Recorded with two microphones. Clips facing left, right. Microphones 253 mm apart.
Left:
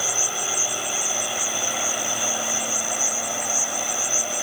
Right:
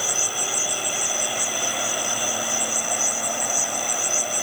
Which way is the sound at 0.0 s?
25° right (ahead or behind).